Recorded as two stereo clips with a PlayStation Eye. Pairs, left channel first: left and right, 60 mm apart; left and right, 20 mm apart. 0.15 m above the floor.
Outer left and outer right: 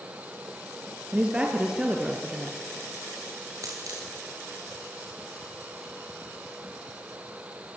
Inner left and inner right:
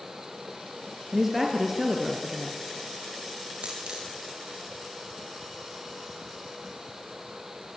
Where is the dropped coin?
65° right (ahead or behind), 5 m.